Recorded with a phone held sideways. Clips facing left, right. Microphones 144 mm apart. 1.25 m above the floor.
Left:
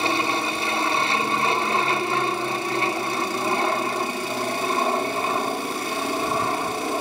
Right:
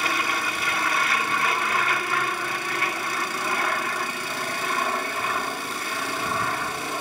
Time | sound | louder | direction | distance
0.0 | an aircraft | left 4 dB | 25° left (ahead or behind) | ?